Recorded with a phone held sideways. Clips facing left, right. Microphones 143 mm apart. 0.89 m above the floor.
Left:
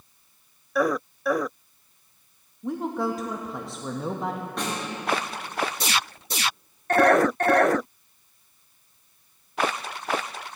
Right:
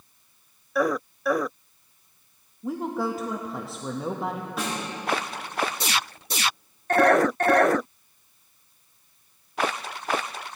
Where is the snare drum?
5° right (ahead or behind), 3 m.